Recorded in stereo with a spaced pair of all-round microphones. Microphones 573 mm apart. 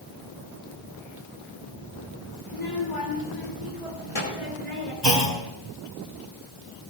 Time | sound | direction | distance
2.5 | a child speaking | 60° left (ahead or behind) | 3 m
5.0 | a clunk | 50° right (ahead or behind) | 2.5 m